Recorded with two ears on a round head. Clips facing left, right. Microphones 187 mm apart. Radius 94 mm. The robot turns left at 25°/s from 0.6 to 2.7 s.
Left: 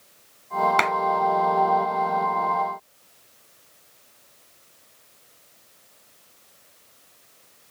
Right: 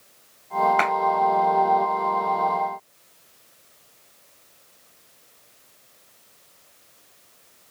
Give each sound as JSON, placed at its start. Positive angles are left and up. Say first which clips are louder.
{"t": 0.8, "sound": "a clap", "louder": "right 1 dB", "side_deg": 50, "distance_m": 1.3}